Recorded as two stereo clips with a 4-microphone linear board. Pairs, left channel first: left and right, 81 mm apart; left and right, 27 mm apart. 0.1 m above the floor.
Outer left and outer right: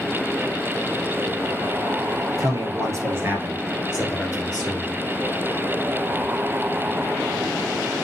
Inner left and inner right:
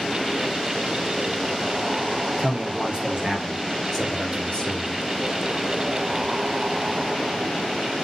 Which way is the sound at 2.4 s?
45° right (ahead or behind).